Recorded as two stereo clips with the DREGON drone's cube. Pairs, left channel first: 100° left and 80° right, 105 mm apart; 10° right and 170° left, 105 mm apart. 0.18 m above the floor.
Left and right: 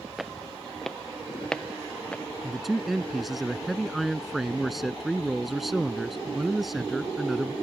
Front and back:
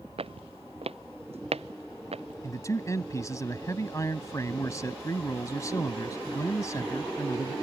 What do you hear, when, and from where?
0.2 s footsteps: 170° right; by 2.3 s straight behind
2.4 s a man speaking: 10° left